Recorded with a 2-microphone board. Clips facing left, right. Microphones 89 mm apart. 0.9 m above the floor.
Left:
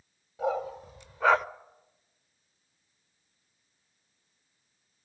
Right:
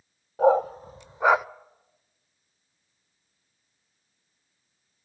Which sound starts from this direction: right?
A dog barking, at 0.4 s.